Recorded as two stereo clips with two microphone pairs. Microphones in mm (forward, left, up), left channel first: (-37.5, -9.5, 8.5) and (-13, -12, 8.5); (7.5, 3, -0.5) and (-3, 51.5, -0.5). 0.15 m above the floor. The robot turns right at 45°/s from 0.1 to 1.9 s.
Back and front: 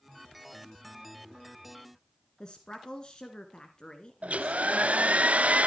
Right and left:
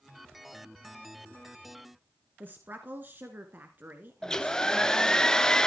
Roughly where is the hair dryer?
Ahead.